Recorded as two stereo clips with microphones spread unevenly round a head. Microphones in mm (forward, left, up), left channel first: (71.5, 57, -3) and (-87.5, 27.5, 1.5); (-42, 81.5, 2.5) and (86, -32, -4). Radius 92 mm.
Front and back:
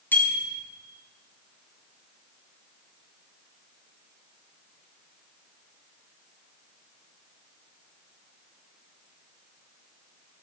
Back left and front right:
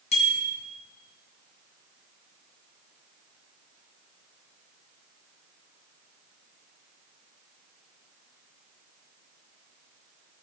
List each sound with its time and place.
0.1 s a bicycle bell: 90° left, 9.5 m